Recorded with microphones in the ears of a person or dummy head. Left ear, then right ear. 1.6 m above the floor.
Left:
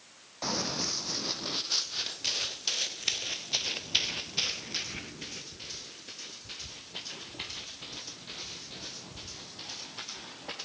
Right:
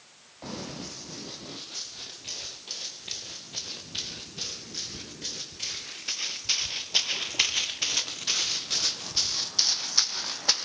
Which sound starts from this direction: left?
Running footsteps, at 0.4 s.